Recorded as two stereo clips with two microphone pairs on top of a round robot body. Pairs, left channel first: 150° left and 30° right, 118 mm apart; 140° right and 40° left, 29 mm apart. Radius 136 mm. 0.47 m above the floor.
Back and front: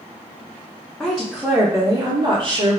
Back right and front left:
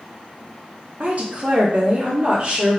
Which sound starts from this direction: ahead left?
A woman speaking, at 1.0 s.